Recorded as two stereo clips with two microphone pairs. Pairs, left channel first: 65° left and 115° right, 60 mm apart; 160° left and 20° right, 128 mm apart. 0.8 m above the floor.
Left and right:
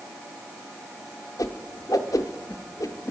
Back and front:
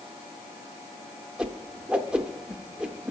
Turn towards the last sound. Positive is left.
turn(degrees=65)